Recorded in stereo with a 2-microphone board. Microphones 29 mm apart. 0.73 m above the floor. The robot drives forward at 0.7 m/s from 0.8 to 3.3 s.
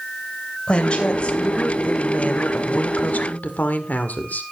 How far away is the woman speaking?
About 3 m.